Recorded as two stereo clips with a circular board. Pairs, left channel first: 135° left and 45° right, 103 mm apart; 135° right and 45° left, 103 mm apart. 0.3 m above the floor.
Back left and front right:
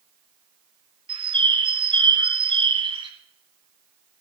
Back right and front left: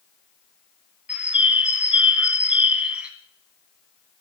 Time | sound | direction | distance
1.1 | a bird | 30° right | 1.6 m